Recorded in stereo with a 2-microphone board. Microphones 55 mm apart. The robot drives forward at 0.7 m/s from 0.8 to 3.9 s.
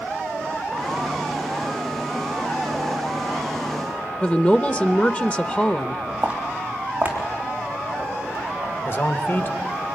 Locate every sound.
4.2 s a woman speaking: 25° left (ahead or behind), 0.7 m
6.2 s footsteps: 20° right (ahead or behind), 2.5 m; by 8.7 s 35° right (ahead or behind), 5.5 m
8.8 s a man speaking: 40° left (ahead or behind), 1.2 m